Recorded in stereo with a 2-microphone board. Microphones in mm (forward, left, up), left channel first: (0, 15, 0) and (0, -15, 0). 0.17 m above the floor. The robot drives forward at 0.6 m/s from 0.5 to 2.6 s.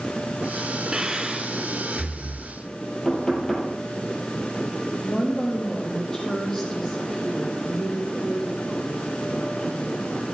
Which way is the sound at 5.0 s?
20° left (ahead or behind).